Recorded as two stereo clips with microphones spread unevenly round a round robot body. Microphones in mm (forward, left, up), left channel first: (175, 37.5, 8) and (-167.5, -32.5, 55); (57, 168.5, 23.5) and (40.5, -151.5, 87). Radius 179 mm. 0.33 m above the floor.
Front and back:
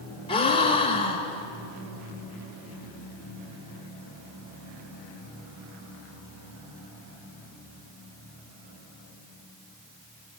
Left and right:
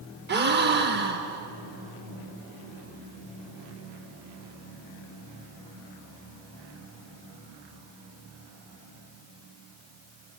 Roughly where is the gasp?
Ahead right.